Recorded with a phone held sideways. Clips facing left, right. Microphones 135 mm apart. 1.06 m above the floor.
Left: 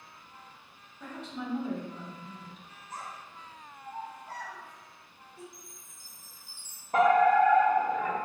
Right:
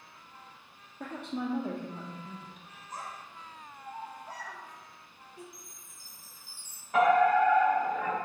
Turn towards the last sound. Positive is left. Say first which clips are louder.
# left 1 dB
turn(degrees=40)  # may be behind; listen again after turning